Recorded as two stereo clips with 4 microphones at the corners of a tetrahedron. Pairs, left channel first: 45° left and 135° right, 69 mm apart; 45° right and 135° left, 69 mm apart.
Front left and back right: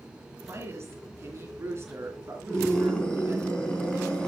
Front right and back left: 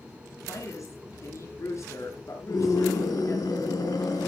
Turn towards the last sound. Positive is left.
turn(degrees=-30)